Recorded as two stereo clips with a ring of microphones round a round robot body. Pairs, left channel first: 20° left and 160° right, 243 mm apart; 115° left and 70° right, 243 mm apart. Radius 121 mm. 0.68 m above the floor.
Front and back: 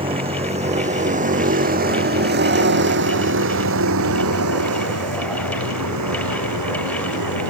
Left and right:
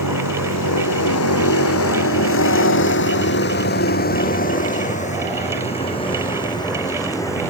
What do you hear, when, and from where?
0.0 s a vehicle: 135° left; by 7.5 s 170° right